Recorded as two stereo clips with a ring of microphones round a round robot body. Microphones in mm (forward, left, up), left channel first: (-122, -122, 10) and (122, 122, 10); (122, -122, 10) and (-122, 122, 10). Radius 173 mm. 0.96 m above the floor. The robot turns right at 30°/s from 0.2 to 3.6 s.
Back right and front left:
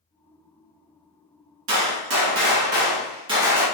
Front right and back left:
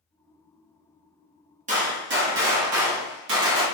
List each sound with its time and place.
1.7 s a gunshot: 70° left, 0.8 m; by 3.6 s 125° left, 0.8 m